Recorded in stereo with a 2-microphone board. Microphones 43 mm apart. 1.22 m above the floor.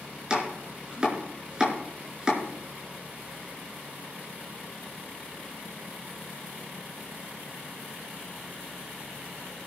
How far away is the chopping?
About 5 m.